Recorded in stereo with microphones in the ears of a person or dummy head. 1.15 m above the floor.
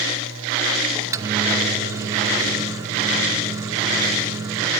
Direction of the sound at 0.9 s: 20° right (ahead or behind).